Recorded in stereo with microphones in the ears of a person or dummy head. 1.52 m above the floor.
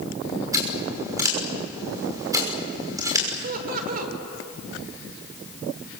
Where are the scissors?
20° right (ahead or behind), 5.5 m.